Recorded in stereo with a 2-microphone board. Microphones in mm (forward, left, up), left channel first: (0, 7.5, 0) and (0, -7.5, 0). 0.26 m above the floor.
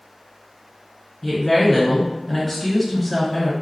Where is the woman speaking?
Centre (ahead or behind), 1.7 m.